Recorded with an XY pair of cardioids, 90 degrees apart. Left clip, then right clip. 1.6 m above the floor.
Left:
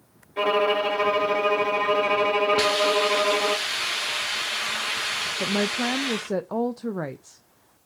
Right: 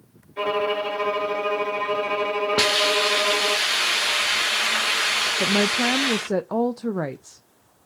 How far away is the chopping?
No chopping in this recording.